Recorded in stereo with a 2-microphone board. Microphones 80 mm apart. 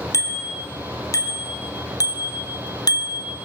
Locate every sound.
0.1 s a bicycle bell: 40° left (ahead or behind), 4.5 m; by 3.4 s 55° left (ahead or behind), 2 m